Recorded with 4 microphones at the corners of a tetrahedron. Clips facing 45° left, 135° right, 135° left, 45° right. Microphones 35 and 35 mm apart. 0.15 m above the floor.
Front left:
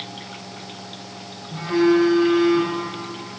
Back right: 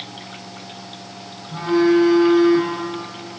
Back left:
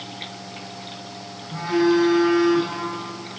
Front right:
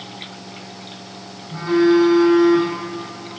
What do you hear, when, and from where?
1.5 s a phone buzzing: 105° right, 3.5 m